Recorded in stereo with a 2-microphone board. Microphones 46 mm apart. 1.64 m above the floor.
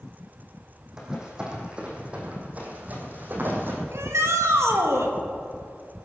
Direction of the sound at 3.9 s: 70° right (ahead or behind).